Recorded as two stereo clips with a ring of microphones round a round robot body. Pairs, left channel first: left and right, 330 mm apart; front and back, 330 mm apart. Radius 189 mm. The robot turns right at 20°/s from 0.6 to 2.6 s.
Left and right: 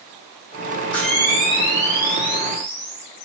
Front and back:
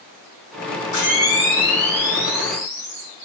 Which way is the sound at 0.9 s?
5° left.